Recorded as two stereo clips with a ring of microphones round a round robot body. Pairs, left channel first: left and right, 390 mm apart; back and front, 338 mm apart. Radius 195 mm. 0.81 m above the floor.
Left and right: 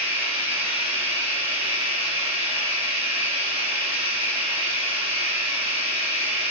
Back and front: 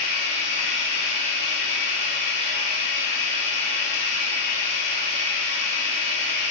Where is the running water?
165° right, 5.5 m.